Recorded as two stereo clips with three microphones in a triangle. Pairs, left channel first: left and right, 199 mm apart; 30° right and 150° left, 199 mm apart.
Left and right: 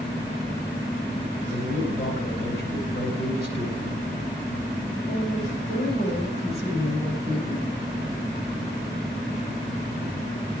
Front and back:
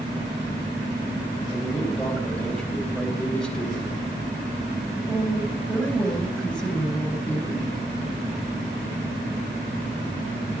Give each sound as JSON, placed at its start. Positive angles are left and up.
{"t": 1.5, "sound": "a man speaking", "azimuth_deg": 55, "distance_m": 4.0}